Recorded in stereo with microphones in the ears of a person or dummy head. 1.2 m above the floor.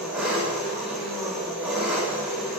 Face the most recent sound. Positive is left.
turn(degrees=-5)  # may be behind; listen again after turning